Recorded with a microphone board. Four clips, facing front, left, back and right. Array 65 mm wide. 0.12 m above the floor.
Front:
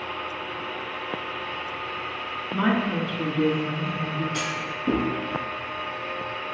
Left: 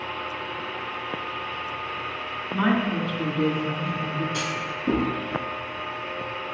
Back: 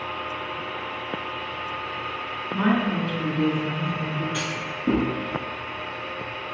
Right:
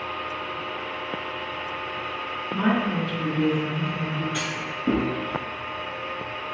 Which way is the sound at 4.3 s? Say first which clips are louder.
Left 1 dB, even; 115° right.